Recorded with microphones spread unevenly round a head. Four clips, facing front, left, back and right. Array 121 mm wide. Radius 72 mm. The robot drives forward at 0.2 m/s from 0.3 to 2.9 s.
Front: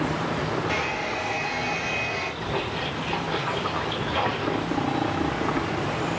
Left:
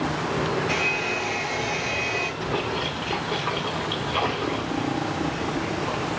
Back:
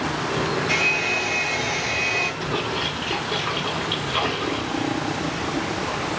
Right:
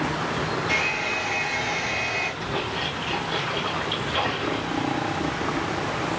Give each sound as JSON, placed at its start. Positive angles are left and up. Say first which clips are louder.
{"t": 0.7, "sound": "a hair dryer", "louder": "left 1 dB, back 2 dB", "azimuth_deg": 105, "distance_m": 1.8}
{"t": 2.4, "sound": "a splash", "louder": "left 2 dB, back 3 dB", "azimuth_deg": 125, "distance_m": 2.5}